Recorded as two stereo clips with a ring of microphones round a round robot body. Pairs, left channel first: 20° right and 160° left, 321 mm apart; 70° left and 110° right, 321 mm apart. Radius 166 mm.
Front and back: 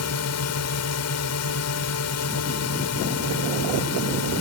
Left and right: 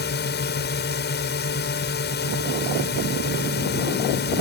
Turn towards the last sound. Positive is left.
turn(degrees=10)